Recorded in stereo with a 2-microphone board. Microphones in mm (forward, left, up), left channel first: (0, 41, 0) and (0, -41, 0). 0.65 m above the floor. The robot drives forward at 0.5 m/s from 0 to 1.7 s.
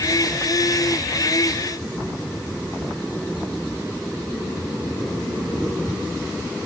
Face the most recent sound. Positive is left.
No sound to turn to.